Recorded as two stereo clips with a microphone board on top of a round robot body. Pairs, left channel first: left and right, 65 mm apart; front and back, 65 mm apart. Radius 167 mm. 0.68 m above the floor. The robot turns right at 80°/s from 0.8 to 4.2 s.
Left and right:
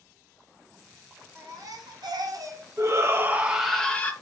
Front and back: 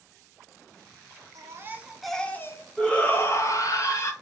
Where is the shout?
75° right, 1.2 m; by 4.1 s 35° left, 1.2 m.